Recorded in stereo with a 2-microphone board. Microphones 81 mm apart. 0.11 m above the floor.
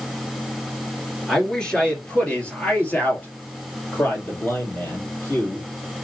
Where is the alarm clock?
No alarm clock in this recording.